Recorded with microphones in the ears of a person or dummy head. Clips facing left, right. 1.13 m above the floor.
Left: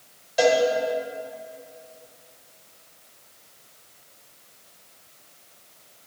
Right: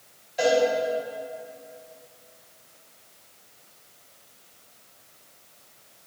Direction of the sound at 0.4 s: 75° left (ahead or behind).